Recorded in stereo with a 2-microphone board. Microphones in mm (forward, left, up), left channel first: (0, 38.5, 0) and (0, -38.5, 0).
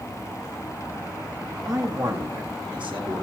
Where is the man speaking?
40° right (ahead or behind), 2.0 m; by 3.2 s 80° right, 2.5 m.